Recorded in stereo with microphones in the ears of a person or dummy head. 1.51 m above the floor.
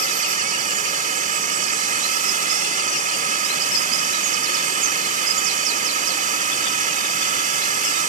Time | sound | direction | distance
0.0 | a drone | 40° right (ahead or behind) | ?